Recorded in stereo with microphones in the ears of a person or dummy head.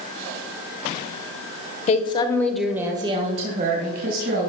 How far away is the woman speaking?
About 1.2 m.